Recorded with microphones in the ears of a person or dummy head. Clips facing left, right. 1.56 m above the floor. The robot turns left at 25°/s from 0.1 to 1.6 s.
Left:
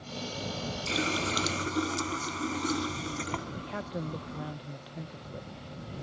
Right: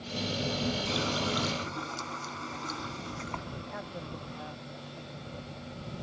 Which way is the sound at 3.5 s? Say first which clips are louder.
Left 4 dB; 35° left (ahead or behind).